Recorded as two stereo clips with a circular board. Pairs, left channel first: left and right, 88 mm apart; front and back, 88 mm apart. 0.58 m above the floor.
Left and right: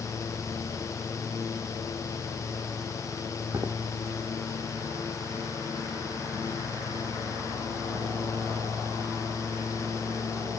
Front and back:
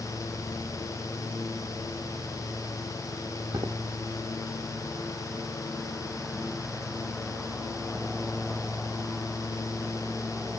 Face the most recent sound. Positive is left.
turn(degrees=-155)